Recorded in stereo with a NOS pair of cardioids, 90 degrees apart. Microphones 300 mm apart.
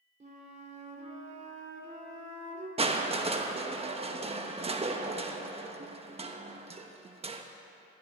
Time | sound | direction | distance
0.2 | a flute | 25° right | 2.5 m
2.8 | crushing | 20° right | 1.1 m